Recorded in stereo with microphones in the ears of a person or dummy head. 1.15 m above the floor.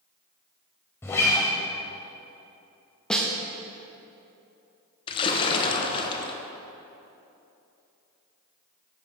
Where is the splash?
30° left (ahead or behind), 0.9 m.